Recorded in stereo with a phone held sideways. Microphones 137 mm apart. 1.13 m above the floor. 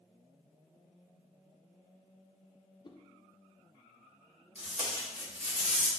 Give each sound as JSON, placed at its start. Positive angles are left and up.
{"t": 2.8, "sound": "a whoosh", "side_deg": 35, "distance_m": 0.7}
{"t": 4.5, "sound": "tape being pulled", "side_deg": -10, "distance_m": 1.9}